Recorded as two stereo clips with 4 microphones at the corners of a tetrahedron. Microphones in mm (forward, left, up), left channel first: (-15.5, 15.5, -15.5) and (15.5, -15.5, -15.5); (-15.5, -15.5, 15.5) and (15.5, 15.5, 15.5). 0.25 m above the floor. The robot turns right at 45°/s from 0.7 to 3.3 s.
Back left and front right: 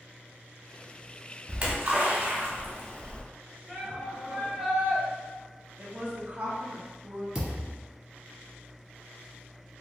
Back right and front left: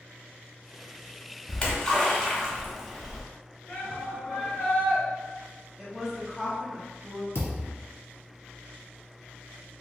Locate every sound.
1.5 s a splash: 90° right, 1.1 m; by 3.2 s 10° right, 1.1 m
3.7 s a shout: 135° right, 1.5 m
5.8 s a woman speaking: 30° right, 1.1 m
7.3 s a thud: 120° right, 1.4 m